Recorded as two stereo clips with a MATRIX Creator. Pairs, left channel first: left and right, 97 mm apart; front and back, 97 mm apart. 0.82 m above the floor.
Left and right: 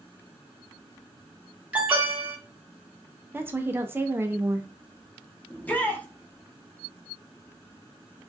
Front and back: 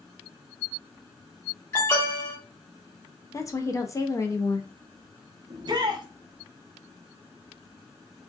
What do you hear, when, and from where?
1.7 s an alarm: 25° right, 1.4 m
3.3 s a woman speaking: 35° right, 0.5 m
5.5 s a shout: 160° left, 0.8 m